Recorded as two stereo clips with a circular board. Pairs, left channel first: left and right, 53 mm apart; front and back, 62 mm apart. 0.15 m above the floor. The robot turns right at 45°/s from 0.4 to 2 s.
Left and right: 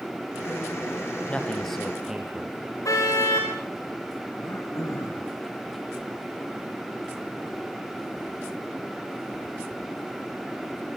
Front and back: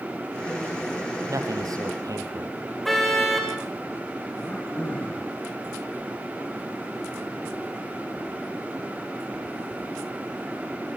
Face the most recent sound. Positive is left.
turn(degrees=65)